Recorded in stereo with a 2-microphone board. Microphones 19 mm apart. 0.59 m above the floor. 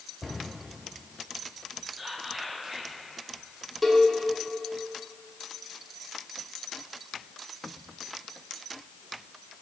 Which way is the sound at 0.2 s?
Centre (ahead or behind).